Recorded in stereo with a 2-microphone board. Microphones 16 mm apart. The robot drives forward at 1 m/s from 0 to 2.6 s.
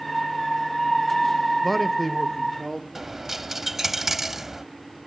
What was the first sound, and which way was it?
A man speaking, 5° left (ahead or behind).